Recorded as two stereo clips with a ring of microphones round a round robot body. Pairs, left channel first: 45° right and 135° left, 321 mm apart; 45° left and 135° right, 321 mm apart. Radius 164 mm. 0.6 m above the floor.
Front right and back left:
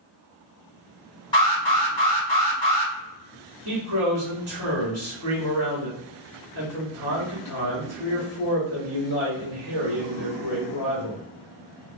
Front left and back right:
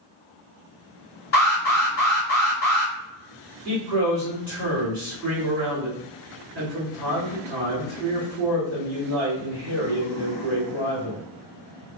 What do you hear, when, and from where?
1.3 s an alarm: 20° left, 1.7 m
3.6 s a man speaking: 135° left, 1.5 m